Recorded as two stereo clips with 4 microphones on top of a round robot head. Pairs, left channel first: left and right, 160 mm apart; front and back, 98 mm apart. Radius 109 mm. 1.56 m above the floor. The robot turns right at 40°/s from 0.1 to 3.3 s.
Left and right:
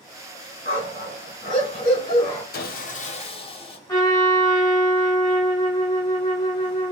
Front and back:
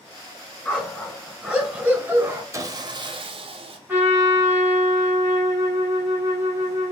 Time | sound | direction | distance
0.7 | a dog barking | 65° left | 1.4 m
2.5 | sawing | 115° left | 0.6 m
3.9 | a trumpet | 135° left | 0.6 m